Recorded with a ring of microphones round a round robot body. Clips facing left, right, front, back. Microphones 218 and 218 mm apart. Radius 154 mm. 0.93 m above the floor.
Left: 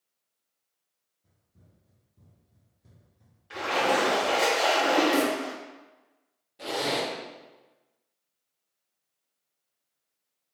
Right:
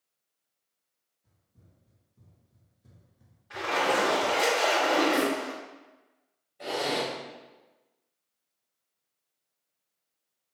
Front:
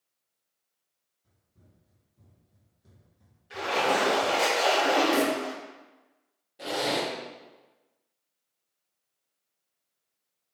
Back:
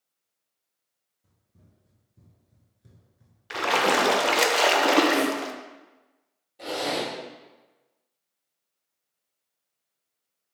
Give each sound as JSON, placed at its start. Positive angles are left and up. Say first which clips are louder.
{"t": 1.2, "sound": "running footsteps", "louder": "left 1 dB, back 2 dB", "azimuth_deg": 170, "distance_m": 1.9}
{"t": 3.5, "sound": "a splash", "louder": "left 2 dB, back 3 dB", "azimuth_deg": 160, "distance_m": 0.5}
{"t": 5.1, "sound": "a snare drum", "louder": "left 2 dB, back 1 dB", "azimuth_deg": 55, "distance_m": 1.2}
{"t": 6.6, "sound": "a zipper", "louder": "even, even", "azimuth_deg": 80, "distance_m": 1.8}